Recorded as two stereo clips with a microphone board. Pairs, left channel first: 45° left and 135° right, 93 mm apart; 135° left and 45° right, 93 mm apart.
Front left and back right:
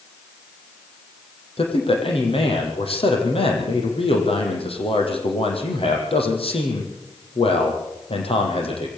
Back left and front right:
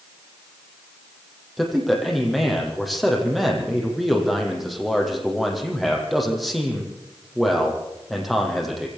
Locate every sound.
1.6 s a man speaking: 45° left, 6.5 m